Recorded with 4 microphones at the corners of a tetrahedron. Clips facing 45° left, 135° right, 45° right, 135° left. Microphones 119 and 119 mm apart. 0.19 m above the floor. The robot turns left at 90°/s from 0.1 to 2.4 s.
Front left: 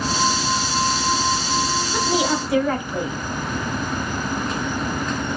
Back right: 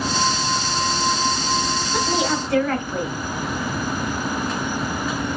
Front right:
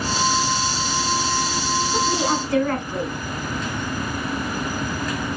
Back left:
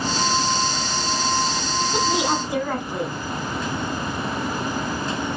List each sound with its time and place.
1.9 s a woman speaking: 140° left, 1.0 m; by 3.1 s 95° left, 1.0 m